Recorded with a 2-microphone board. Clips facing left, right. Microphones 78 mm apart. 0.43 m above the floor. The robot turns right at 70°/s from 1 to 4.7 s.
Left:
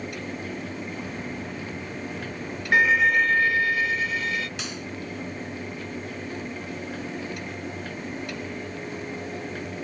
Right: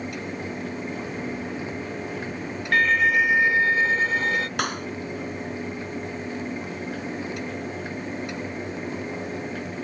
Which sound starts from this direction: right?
A clap, at 4.6 s.